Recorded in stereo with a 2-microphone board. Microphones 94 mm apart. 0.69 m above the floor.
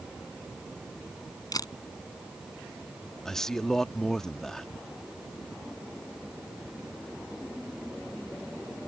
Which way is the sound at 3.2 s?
5° left (ahead or behind).